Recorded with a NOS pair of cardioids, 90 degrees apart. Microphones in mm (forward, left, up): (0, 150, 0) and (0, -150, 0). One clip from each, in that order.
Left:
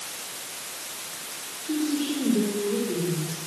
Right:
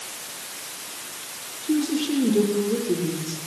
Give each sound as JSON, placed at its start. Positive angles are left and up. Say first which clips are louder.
{"t": 1.6, "sound": "a woman speaking", "louder": "right 3 dB", "azimuth_deg": -40, "distance_m": 6.5}